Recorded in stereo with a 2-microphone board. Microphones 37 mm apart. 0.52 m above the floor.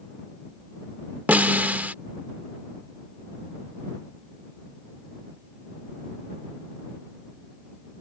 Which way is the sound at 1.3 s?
50° right (ahead or behind).